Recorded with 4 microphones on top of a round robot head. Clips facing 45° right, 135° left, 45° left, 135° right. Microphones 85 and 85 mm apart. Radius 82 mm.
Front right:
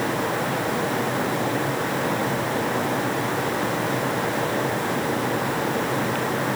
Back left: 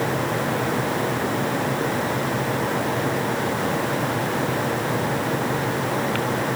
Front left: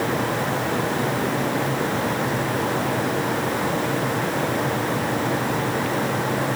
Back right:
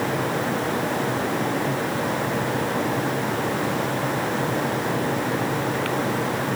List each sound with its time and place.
Only background noise.